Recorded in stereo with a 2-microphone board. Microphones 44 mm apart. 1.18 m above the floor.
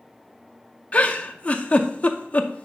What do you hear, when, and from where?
0.9 s a giggle: 30° left (ahead or behind), 0.7 m